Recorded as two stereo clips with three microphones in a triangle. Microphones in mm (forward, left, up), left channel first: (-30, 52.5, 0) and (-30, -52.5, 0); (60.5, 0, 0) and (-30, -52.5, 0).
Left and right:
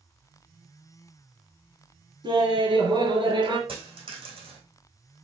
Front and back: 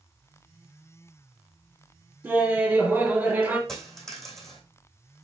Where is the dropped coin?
55° right, 2.5 m.